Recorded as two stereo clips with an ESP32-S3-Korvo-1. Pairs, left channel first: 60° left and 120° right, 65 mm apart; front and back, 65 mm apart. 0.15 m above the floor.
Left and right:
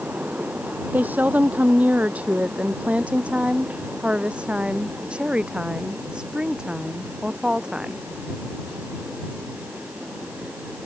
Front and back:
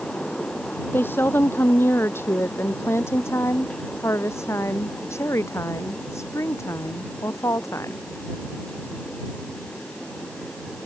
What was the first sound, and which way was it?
A woman speaking, 55° right.